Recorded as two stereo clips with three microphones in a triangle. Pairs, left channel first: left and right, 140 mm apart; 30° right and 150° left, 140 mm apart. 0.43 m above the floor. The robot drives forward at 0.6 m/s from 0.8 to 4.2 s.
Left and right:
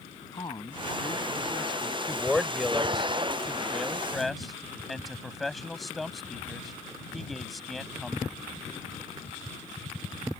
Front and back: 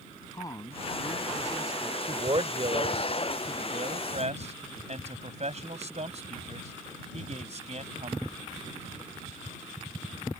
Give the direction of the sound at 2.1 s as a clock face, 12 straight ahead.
6 o'clock.